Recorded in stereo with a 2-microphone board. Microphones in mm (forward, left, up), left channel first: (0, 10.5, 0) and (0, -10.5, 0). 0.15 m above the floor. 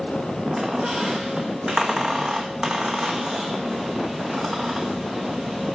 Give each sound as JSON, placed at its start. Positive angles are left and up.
{"t": 0.5, "sound": "a squeak", "side_deg": -30, "distance_m": 1.2}